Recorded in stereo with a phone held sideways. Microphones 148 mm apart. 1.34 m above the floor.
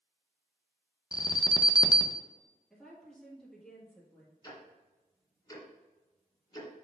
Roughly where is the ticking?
Left.